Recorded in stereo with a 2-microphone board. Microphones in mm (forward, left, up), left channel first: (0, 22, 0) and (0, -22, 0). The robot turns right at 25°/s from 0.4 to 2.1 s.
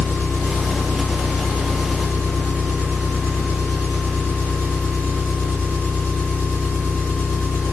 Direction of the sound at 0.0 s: 90° left.